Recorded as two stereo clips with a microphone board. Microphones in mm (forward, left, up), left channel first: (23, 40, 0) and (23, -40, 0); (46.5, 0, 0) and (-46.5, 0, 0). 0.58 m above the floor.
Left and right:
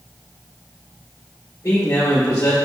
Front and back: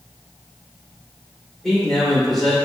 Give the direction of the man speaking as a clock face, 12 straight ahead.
9 o'clock.